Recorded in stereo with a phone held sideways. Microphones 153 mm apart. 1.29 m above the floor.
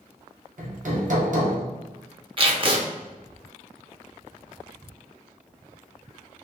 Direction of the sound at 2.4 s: 35° right (ahead or behind).